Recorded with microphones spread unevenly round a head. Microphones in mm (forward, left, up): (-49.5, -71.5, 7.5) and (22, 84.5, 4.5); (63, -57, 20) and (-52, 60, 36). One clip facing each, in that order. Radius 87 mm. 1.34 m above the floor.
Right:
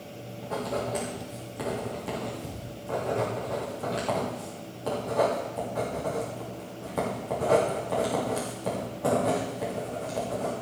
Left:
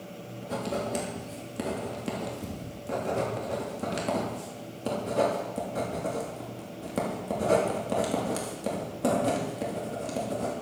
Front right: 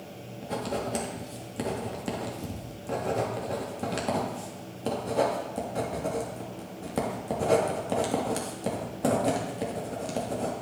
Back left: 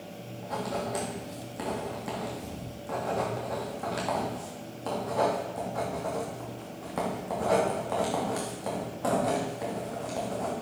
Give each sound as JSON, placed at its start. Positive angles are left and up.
{"t": 0.4, "sound": "writing", "azimuth_deg": 10, "distance_m": 3.0}